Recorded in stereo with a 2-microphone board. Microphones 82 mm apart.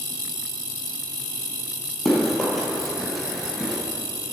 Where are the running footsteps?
Centre (ahead or behind), 2.5 m.